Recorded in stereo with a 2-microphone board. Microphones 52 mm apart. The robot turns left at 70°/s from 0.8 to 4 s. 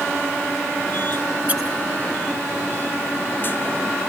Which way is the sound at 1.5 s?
35° right (ahead or behind).